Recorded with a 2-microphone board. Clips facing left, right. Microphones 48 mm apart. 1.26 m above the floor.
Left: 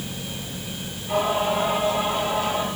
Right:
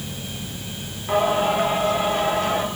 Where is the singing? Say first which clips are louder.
Right 3 dB; 55° right (ahead or behind), 8.5 m.